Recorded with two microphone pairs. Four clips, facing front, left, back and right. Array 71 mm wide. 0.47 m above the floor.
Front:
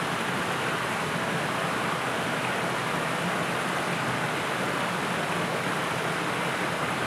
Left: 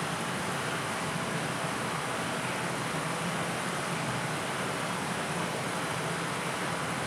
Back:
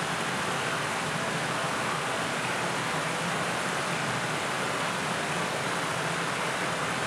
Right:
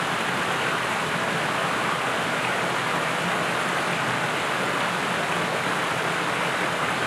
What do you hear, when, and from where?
0.0 s running water: 85° right, 5 m